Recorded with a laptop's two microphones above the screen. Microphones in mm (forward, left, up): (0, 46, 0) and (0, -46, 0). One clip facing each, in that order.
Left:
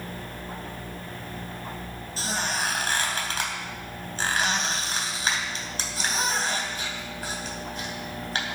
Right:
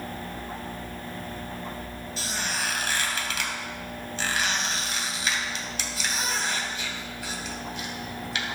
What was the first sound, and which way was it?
A squeak, 40° left (ahead or behind).